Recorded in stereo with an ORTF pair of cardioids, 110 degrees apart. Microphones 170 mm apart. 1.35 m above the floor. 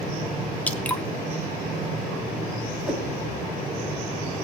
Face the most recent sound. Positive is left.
turn(degrees=-5)